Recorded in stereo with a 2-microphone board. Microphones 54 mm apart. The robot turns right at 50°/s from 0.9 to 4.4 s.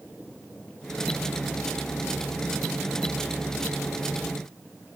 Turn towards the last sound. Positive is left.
No sound to turn to.